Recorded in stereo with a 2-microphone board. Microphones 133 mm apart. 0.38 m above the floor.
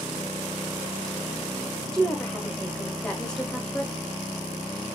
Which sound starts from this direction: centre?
A woman speaking, at 1.9 s.